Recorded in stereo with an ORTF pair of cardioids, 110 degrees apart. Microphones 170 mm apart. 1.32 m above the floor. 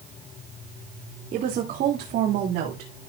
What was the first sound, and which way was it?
A woman speaking, 55° right.